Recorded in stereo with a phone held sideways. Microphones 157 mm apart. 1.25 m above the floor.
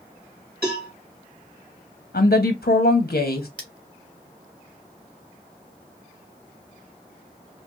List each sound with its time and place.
0.6 s a cowbell: 75° right (ahead or behind), 2 m
2.1 s a woman speaking: 80° left, 0.6 m
3.6 s cutlery clinking: 5° left (ahead or behind), 1.1 m